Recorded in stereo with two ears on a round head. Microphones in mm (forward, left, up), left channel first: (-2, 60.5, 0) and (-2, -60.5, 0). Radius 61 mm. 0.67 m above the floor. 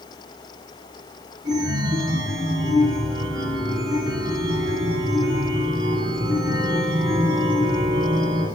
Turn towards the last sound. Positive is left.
turn(degrees=-30)  # may be behind; listen again after turning